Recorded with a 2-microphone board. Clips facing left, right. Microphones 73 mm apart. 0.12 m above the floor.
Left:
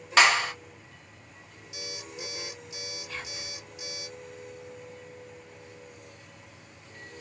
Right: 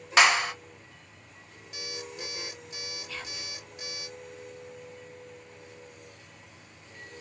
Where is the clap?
5° right (ahead or behind), 1.0 m.